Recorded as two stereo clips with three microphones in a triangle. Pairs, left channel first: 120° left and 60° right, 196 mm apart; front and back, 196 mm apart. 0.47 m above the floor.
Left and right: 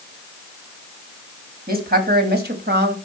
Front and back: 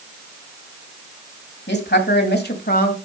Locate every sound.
1.7 s a woman speaking: 20° right, 2.5 m; by 2.9 s 35° right, 2 m